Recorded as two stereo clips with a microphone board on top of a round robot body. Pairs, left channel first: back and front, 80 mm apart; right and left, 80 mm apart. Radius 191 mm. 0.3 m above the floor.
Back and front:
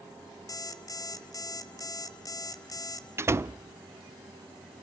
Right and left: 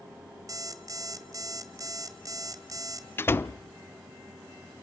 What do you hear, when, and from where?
0.5 s an alarm clock: 135° left, 1.5 m
3.2 s a door slam: 40° right, 0.7 m